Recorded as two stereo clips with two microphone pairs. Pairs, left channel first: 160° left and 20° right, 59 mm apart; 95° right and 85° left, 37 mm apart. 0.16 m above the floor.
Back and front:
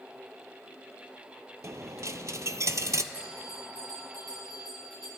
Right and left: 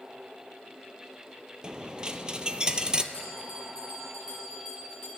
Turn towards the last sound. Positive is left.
turn(degrees=-20)